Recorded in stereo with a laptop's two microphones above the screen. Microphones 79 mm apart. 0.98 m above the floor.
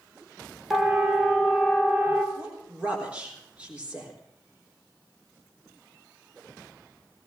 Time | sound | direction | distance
0.7 | a siren | 5° right (ahead or behind) | 2.5 m
2.4 | a woman speaking | 15° right (ahead or behind) | 3.5 m